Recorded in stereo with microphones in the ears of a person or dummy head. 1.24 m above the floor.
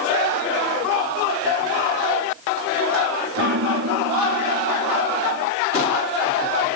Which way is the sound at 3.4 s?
75° right (ahead or behind).